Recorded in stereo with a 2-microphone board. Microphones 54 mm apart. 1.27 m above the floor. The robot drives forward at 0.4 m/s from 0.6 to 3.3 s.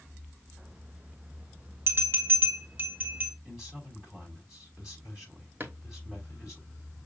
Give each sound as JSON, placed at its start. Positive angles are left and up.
{"t": 1.9, "sound": "a bell", "side_deg": -50, "distance_m": 1.2}
{"t": 3.5, "sound": "a man speaking", "side_deg": -15, "distance_m": 3.0}
{"t": 5.6, "sound": "a drawer", "side_deg": -35, "distance_m": 1.3}